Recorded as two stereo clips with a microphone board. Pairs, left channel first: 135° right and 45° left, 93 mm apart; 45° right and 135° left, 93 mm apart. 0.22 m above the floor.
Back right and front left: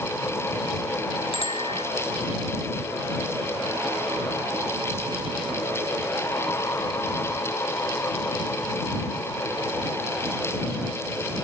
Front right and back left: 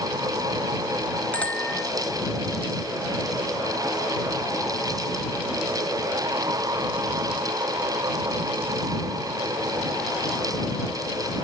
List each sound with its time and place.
1.3 s a bicycle bell: 120° right